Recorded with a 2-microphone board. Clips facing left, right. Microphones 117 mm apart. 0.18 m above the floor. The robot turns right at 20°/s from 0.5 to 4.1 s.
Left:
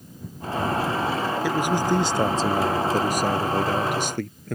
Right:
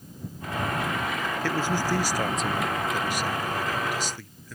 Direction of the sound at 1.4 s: 15° left.